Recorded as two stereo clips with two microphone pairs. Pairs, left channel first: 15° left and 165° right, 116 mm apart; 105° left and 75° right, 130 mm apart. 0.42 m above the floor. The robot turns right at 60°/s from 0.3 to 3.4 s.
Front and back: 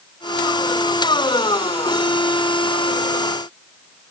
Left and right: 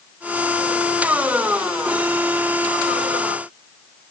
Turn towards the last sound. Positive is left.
No sound to turn to.